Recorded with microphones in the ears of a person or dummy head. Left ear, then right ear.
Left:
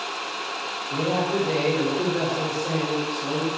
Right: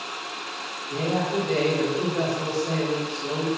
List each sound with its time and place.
0.9 s a man speaking: 60° left (ahead or behind), 3 m